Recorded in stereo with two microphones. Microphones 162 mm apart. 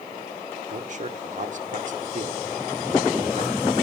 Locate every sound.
0.7 s a man speaking: 50° right (ahead or behind), 1.2 m